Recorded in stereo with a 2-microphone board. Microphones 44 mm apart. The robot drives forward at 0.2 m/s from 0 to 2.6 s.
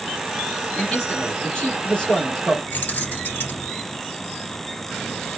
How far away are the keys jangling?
About 1.5 m.